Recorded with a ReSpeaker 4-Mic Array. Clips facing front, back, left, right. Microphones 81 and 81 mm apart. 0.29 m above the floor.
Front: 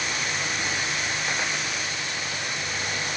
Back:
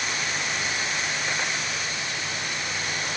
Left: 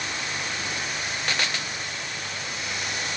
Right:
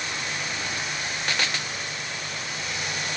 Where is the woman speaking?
I don't hear a woman speaking.